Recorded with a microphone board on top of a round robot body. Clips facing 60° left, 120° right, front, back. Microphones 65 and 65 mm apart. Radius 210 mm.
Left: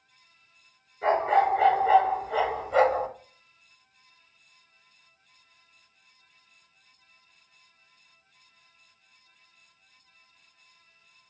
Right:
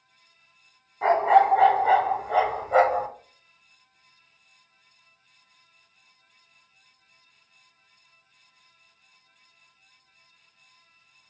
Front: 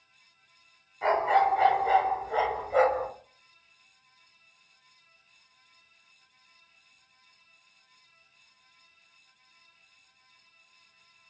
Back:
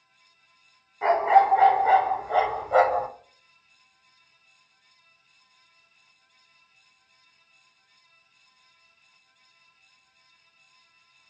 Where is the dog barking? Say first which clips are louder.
Right 4 dB, back 5 dB; 110° right, 1.2 m; by 3.1 s 170° left, 0.8 m.